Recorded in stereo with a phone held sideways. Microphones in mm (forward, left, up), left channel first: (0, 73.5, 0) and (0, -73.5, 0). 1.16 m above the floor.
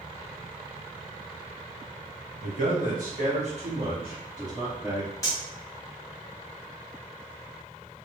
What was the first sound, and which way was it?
A man speaking, 65° right (ahead or behind).